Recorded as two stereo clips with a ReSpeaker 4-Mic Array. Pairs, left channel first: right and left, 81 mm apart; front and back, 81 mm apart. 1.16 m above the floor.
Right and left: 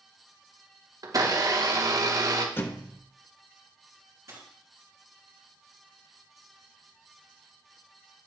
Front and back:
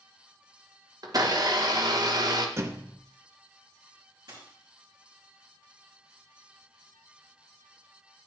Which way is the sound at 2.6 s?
140° right.